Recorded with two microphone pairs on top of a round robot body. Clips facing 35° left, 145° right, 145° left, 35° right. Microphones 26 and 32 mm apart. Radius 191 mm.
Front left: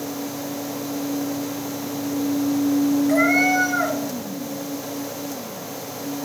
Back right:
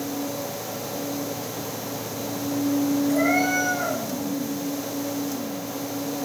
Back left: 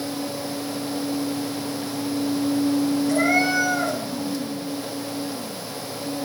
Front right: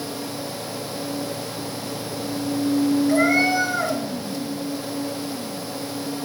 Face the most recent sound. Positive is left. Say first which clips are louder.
# front left 4 dB, even
turn(degrees=35)